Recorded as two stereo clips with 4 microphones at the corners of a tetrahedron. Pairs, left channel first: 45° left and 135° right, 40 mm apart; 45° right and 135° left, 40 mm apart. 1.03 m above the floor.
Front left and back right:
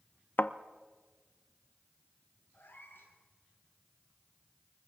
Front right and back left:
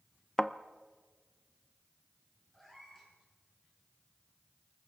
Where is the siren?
I don't hear a siren.